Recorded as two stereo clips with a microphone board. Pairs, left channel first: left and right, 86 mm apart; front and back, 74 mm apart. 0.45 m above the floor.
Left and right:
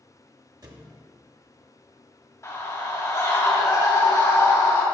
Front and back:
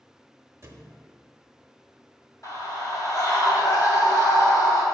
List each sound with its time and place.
0.6 s a thud: 130° right, 0.8 m
2.4 s a scream: 35° left, 2 m